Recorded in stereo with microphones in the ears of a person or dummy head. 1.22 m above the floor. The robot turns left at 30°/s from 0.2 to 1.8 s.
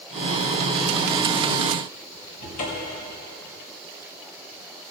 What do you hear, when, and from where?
2.4 s a cupboard door: 50° left (ahead or behind), 2.5 m